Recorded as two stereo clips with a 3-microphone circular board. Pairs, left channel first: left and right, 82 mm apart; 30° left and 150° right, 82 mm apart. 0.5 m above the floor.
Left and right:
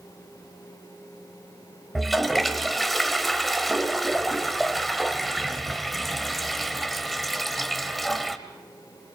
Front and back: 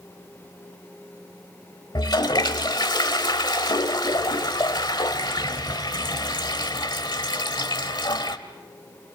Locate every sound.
1.9 s a toilet flushing: straight ahead, 1.1 m